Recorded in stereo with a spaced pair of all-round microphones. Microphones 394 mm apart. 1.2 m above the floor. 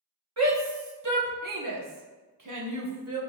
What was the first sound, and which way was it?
A shout, 40° right (ahead or behind).